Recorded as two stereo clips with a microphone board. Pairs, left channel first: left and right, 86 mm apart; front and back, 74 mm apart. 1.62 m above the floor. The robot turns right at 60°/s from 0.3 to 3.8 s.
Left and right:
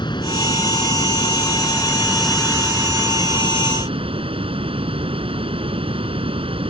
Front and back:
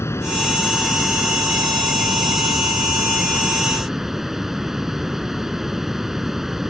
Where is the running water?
55° left; by 6.7 s 95° right.